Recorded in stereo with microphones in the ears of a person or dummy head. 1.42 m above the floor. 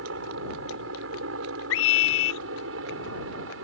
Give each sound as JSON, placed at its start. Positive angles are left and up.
{"t": 0.0, "sound": "a helicopter", "side_deg": -75}
{"t": 1.7, "sound": "a scream", "side_deg": 75}